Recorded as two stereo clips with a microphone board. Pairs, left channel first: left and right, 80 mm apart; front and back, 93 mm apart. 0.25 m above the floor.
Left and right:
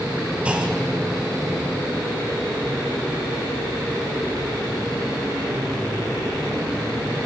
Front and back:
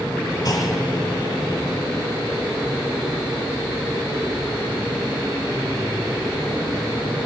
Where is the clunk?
20° right, 1.9 m.